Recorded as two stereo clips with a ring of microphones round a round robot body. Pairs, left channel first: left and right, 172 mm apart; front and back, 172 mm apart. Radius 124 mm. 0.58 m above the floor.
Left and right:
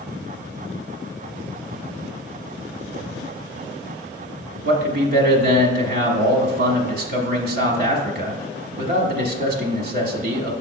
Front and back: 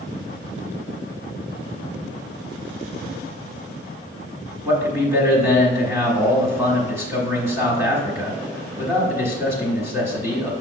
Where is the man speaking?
105° right, 1.3 m.